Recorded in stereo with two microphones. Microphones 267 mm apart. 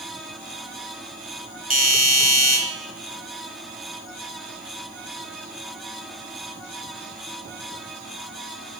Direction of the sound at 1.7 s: 35° right (ahead or behind).